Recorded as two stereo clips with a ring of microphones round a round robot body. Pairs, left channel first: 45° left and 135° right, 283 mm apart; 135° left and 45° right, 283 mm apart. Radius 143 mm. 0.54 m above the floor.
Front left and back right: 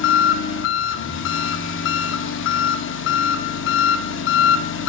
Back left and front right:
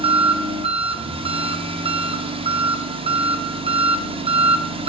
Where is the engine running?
20° left, 0.8 m.